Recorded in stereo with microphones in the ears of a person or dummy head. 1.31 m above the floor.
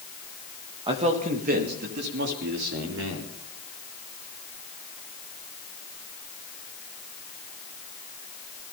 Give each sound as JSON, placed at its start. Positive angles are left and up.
{"t": 0.9, "sound": "a man speaking", "side_deg": -20, "distance_m": 1.9}